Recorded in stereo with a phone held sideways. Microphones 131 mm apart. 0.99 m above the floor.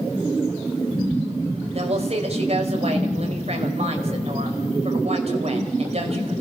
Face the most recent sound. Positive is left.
turn(degrees=-55)  # may be behind; listen again after turning